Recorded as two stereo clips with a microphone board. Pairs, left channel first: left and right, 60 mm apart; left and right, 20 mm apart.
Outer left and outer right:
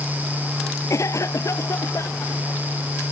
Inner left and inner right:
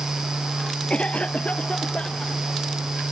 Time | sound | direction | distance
0.9 | a cough | 60° left (ahead or behind) | ?